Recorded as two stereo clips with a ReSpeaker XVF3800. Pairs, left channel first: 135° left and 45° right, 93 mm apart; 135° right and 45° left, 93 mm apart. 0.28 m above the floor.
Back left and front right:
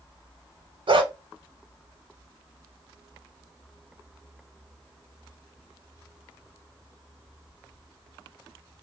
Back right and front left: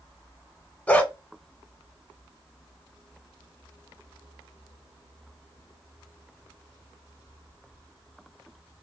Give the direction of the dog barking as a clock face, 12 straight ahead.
2 o'clock.